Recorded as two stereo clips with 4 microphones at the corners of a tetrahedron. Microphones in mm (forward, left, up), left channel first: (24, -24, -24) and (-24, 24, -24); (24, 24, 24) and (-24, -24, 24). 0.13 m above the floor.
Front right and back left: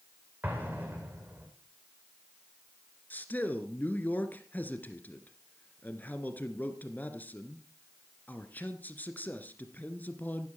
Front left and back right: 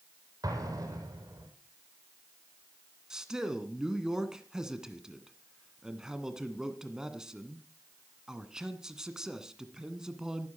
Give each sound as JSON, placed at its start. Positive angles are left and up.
{"t": 0.4, "sound": "an explosion", "azimuth_deg": -160, "distance_m": 5.0}
{"t": 3.1, "sound": "a man speaking", "azimuth_deg": -65, "distance_m": 1.8}